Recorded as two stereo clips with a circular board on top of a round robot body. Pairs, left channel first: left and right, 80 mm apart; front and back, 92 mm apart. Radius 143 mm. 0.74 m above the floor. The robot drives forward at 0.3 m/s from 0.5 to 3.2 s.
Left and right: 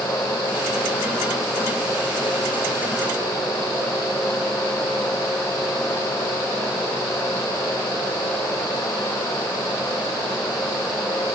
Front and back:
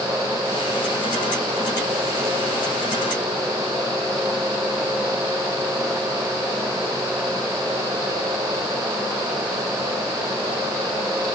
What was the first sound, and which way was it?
Only background noise.